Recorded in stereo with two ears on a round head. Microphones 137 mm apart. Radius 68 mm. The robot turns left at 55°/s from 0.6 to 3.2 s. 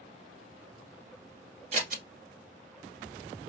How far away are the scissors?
About 1.6 m.